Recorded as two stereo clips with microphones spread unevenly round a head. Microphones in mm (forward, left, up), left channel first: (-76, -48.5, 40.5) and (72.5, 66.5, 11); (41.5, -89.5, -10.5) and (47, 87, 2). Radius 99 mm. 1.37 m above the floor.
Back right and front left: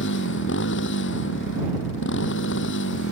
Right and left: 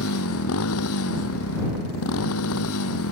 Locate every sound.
0.0 s a motorcycle: 110° right